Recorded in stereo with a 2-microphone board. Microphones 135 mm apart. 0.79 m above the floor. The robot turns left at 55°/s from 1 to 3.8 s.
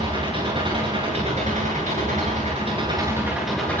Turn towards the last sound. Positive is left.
turn(degrees=165)